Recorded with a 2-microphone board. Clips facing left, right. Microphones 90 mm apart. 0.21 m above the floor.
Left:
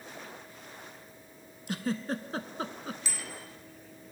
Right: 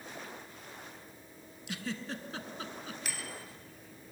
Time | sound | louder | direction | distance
1.7 | a giggle | left 7 dB | 40° left (ahead or behind) | 0.6 m
3.0 | a bicycle bell | even | 65° right (ahead or behind) | 2.5 m